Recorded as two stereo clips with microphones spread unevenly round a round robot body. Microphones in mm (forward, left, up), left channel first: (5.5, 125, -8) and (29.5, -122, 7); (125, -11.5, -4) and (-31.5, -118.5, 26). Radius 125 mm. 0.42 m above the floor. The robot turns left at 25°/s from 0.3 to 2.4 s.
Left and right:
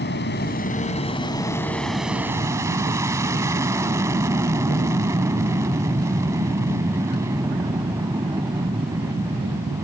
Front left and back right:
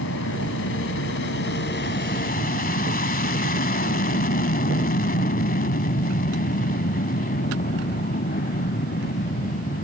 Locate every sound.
0.0 s an aircraft: 45° left; by 9.8 s 5° right